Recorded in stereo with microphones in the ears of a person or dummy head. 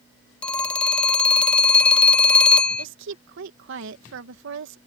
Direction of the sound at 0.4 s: 10° left (ahead or behind).